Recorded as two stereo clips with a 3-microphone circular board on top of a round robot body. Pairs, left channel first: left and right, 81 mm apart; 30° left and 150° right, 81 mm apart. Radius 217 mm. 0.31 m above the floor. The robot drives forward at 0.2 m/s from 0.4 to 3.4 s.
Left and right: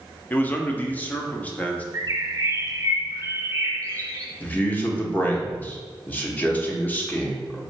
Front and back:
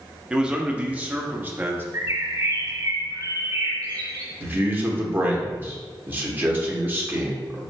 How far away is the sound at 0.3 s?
About 0.9 m.